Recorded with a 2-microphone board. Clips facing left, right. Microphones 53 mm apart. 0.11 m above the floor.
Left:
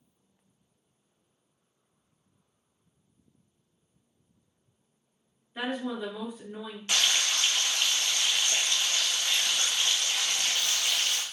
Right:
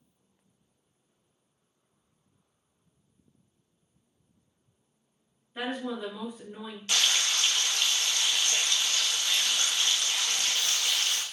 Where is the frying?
25° left (ahead or behind), 0.7 m.